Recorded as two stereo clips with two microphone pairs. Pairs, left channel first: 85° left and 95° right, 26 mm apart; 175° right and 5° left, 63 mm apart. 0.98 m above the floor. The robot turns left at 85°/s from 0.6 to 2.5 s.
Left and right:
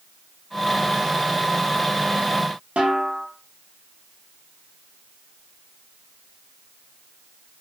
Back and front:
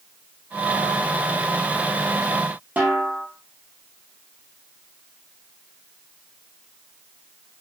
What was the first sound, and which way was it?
A snare drum, 55° right.